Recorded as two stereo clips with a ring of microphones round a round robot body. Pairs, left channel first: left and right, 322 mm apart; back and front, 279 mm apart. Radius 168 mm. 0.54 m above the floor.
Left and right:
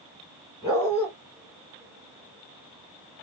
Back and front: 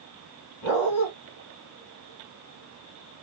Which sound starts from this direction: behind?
A dog barking, at 0.6 s.